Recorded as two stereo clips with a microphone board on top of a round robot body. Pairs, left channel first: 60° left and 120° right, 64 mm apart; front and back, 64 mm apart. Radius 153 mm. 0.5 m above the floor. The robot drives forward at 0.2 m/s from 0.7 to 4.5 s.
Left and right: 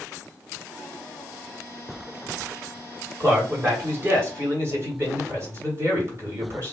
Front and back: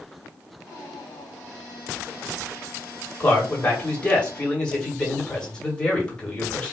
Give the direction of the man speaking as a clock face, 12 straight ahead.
2 o'clock.